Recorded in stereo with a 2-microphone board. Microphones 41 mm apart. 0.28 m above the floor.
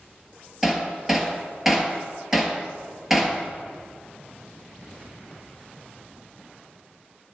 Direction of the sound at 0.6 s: 5° right (ahead or behind).